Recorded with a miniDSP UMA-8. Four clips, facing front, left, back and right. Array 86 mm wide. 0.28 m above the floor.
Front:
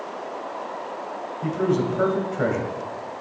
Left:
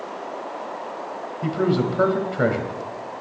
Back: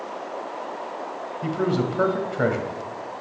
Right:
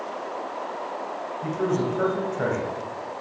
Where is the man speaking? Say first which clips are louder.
Left 4 dB, front 1 dB; 115° left, 1.4 m.